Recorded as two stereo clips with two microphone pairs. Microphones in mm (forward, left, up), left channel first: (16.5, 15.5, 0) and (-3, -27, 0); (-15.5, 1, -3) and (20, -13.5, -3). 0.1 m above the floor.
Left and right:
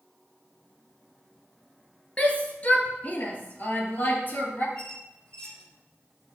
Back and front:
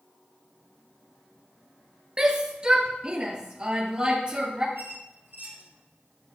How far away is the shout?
About 2.0 m.